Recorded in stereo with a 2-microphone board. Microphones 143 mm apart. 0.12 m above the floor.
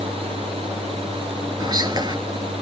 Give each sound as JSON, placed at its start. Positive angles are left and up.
{"t": 1.6, "sound": "whispering", "side_deg": -30, "distance_m": 2.0}